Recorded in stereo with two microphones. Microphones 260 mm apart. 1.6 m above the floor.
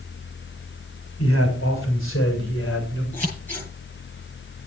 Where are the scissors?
10° left (ahead or behind), 9.5 m.